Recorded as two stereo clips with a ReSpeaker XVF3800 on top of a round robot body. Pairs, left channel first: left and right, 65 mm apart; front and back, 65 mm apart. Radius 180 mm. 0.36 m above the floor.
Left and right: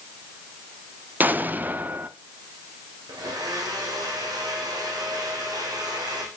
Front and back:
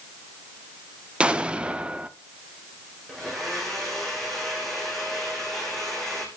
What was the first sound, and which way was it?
An explosion, 120° right.